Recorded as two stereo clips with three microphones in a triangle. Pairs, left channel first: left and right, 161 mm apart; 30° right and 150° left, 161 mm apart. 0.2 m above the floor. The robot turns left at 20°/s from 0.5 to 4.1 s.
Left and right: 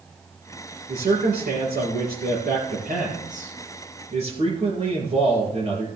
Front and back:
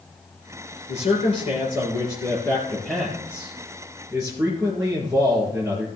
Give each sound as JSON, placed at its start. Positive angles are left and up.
{"t": 0.9, "sound": "a man speaking", "azimuth_deg": -65, "distance_m": 3.5}